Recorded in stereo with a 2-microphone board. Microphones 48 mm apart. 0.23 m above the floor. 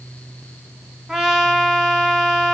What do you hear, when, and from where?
1.1 s a trumpet: 10° right (ahead or behind), 1.0 m